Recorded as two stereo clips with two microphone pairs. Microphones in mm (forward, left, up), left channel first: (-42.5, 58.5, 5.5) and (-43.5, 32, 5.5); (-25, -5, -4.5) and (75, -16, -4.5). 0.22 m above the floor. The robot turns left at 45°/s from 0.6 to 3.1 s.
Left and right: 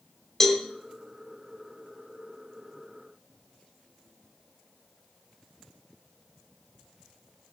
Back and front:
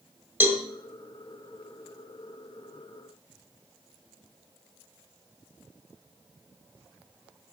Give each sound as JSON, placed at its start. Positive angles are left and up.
{"t": 0.4, "sound": "a cowbell", "azimuth_deg": 25, "distance_m": 1.7}